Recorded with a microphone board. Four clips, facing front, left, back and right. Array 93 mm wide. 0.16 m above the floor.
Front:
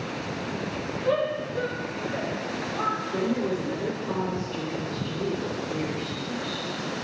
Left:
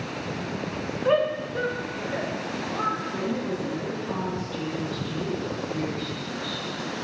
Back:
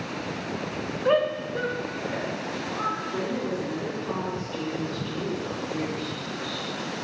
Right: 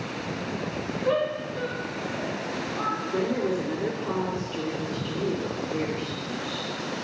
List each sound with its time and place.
1.1 s a shout: 150° left, 1.4 m; by 3.0 s 95° left, 2.5 m
3.1 s a woman speaking: 85° right, 2.5 m